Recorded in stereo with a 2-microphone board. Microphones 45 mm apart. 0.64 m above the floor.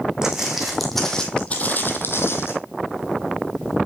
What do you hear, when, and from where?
0.2 s footsteps: 15° right (ahead or behind), 2.5 m; by 2.5 s 70° left (ahead or behind), 1.9 m